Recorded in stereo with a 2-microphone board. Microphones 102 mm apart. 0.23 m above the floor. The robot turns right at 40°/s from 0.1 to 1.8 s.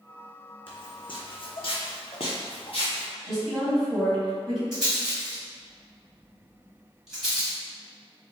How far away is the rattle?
About 1.2 m.